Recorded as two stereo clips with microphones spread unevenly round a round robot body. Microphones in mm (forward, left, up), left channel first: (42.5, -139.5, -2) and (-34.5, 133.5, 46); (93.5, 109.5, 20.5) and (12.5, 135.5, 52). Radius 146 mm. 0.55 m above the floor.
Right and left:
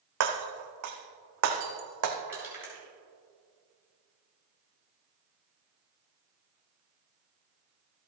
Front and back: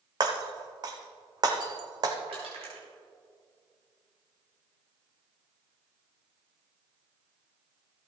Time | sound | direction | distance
0.2 | breaking glass | 140° left | 1.7 m
2.3 | crushing | 170° right | 4 m